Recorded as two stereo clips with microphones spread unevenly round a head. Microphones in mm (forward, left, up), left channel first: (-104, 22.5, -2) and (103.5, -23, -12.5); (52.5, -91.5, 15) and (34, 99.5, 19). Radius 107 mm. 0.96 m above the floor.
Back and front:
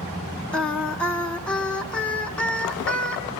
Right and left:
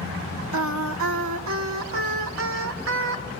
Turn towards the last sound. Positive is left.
turn(degrees=85)